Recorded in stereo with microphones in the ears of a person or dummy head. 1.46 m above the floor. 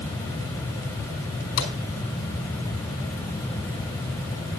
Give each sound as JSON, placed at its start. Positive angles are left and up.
{"t": 1.6, "sound": "a gunshot", "side_deg": 80, "distance_m": 4.0}